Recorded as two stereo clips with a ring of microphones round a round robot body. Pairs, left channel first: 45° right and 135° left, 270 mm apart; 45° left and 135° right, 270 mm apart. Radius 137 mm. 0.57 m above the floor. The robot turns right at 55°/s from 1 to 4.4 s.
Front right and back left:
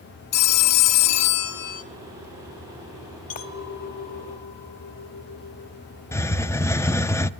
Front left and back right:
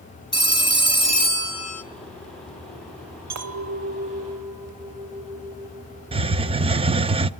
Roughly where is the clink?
Right.